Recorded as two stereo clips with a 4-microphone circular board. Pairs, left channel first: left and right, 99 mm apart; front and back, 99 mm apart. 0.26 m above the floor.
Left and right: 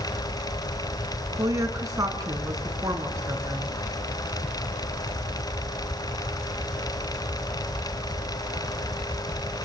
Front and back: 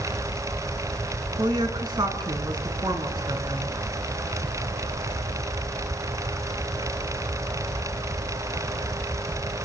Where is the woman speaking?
140° right, 3 m.